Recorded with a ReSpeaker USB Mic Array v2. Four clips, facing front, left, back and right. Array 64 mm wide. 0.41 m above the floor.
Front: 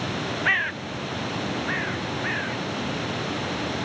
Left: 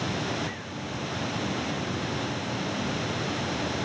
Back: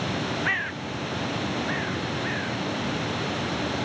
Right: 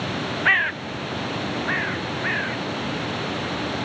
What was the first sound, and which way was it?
A bird, 80° right.